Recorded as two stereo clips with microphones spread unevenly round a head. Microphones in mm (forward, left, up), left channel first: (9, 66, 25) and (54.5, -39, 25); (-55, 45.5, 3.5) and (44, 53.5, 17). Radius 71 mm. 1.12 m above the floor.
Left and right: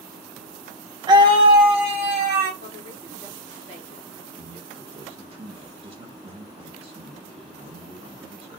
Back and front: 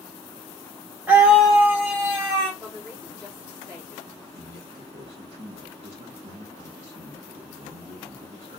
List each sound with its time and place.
1.1 s a scream: 75° right, 0.6 m; by 2.5 s 85° right, 1.3 m
2.6 s a woman speaking: 95° right, 1.9 m
4.3 s a man speaking: 30° right, 1.2 m